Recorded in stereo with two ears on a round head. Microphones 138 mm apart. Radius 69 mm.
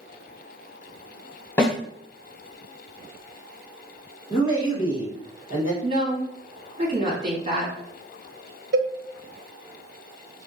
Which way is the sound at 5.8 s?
30° right (ahead or behind).